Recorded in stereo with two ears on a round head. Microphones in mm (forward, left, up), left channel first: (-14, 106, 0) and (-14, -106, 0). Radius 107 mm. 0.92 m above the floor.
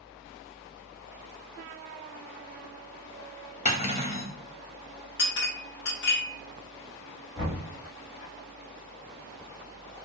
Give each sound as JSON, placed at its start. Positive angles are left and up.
{"t": 3.6, "sound": "cutlery clinking", "side_deg": 30, "distance_m": 0.6}
{"t": 5.2, "sound": "a clink", "side_deg": 50, "distance_m": 0.7}
{"t": 7.3, "sound": "knocking", "side_deg": 5, "distance_m": 1.1}